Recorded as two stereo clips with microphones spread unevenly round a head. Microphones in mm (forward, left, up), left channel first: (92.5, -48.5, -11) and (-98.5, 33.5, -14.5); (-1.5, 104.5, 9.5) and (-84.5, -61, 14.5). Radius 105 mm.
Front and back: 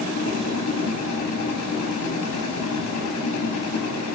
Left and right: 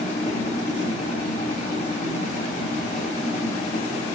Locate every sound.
0.0 s a machine running: straight ahead, 1.4 m